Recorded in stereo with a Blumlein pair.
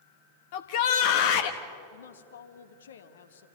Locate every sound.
0.5 s a shout: 50° left, 1.1 m
1.9 s a woman speaking: 65° left, 1.4 m